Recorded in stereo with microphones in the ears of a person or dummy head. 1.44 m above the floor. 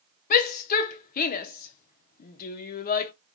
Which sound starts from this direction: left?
A shout, at 0.3 s.